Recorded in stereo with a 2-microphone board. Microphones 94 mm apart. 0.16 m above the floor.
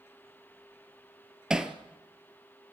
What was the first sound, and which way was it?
Hammering, 5° right (ahead or behind).